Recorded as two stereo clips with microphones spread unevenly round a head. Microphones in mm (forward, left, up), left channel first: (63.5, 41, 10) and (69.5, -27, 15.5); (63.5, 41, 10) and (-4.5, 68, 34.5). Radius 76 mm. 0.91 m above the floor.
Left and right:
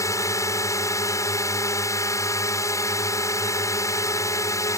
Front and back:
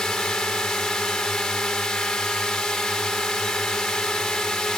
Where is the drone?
60° left.